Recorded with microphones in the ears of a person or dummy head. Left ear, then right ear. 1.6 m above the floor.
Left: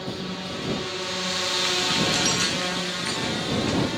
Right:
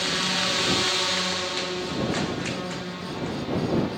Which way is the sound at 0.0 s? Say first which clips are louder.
Right 9 dB; 55° right (ahead or behind).